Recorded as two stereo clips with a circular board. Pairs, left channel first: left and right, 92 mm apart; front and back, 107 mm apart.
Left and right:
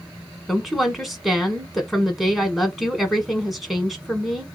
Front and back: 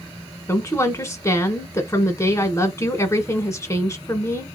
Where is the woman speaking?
5° right, 1.1 m.